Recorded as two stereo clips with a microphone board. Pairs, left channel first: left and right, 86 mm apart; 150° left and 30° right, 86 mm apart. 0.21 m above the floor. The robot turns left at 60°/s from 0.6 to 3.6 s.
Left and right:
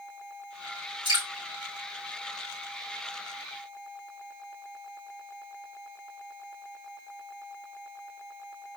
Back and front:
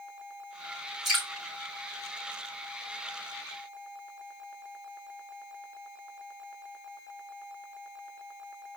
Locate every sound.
1.1 s dripping: 115° right, 4.5 m; by 1.2 s 125° right, 4.5 m